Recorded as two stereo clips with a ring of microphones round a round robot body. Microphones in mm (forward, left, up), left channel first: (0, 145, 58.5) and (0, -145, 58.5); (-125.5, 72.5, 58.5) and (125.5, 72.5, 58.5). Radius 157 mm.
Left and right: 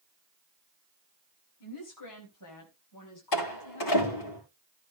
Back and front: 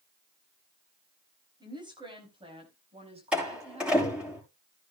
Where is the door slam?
85° left, 8.5 m.